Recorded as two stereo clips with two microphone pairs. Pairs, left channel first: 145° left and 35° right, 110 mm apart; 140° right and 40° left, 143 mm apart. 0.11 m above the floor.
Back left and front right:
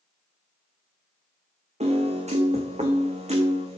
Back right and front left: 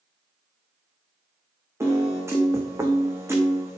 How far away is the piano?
About 1.9 m.